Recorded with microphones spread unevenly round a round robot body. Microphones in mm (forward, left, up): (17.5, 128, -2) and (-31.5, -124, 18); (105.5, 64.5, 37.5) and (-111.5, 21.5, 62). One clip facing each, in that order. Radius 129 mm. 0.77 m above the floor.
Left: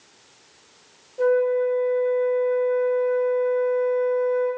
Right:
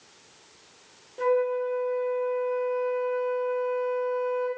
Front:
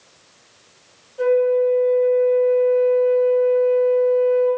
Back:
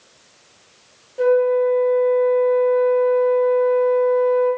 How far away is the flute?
About 0.7 m.